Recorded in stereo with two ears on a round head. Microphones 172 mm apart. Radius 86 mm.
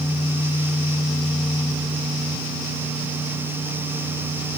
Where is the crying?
No crying in this recording.